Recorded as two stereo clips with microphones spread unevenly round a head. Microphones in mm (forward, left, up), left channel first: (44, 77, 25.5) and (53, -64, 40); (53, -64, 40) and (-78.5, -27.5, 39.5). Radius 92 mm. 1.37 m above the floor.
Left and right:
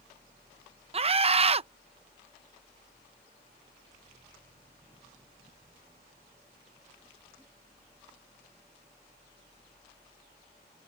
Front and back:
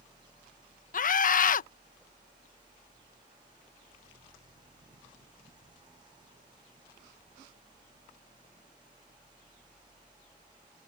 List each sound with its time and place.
0.9 s a scream: 40° right